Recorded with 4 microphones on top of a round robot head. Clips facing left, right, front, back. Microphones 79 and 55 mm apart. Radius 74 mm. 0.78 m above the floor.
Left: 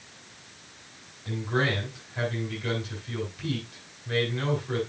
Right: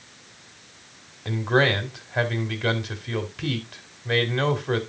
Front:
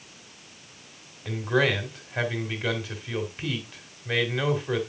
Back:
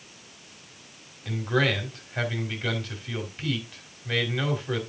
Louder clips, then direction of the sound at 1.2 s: Right 6 dB, front 1 dB; 80° right.